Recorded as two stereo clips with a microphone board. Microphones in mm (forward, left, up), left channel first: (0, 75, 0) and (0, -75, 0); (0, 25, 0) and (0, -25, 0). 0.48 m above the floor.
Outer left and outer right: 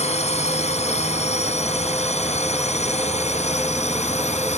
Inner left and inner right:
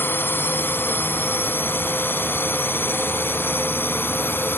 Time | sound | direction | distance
0.0 | a drone | 45° left (ahead or behind) | ?